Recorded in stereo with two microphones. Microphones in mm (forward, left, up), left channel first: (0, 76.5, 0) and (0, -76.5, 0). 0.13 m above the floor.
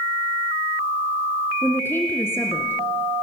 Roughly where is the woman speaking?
Centre.